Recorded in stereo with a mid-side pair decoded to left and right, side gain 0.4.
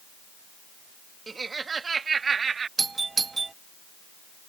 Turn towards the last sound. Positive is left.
turn(degrees=-35)